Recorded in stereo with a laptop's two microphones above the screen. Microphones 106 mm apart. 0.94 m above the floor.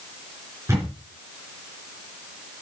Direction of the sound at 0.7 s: 25° right (ahead or behind).